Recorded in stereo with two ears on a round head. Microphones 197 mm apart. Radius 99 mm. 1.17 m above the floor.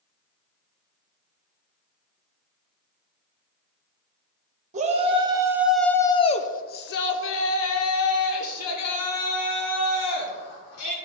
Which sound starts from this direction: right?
A shout, at 4.7 s.